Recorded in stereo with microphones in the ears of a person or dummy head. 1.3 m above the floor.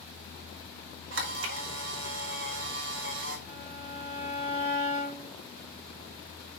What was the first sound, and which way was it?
A camera shutter, 85° right.